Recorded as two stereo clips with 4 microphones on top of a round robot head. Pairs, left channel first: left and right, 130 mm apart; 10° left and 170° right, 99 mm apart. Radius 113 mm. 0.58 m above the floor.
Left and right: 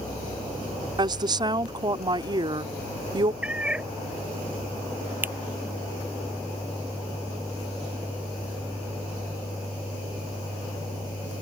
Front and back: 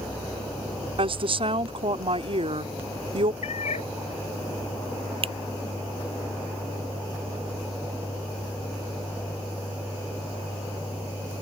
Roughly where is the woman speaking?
Behind right.